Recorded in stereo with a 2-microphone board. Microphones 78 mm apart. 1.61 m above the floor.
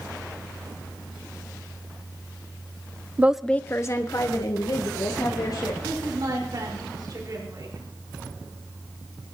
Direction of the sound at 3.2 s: 25° right (ahead or behind).